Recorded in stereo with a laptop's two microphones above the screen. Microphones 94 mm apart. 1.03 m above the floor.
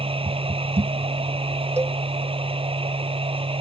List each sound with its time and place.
0.0 s a machine running: 80° right
1.8 s a cowbell: 30° right (ahead or behind)